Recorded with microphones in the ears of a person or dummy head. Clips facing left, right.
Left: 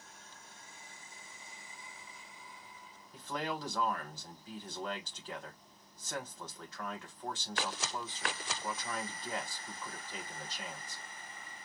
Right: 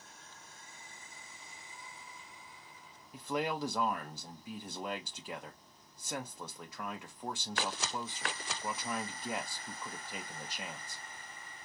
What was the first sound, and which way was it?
A man speaking, 10° right (ahead or behind).